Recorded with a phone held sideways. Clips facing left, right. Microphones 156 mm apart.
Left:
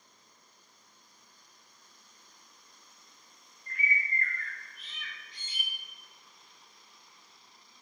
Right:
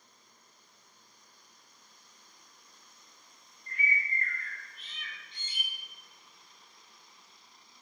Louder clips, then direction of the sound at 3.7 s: Even; 25° right (ahead or behind).